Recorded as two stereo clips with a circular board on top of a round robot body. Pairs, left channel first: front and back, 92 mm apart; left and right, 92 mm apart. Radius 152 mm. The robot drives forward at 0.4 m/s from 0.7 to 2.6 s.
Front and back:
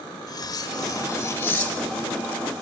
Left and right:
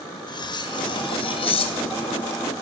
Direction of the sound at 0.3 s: 50° left.